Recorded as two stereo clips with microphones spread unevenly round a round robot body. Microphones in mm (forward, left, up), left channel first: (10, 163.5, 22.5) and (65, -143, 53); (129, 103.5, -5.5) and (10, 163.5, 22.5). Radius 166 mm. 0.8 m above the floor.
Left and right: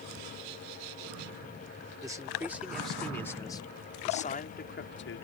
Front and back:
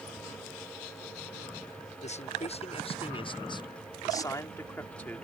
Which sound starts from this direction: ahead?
A man speaking, at 2.0 s.